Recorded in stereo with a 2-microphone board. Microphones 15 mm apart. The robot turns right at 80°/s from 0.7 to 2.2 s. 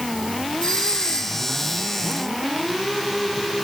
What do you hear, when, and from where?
0.6 s a doorbell: 90° left, 7.5 m; by 1.4 s 150° left, 7.5 m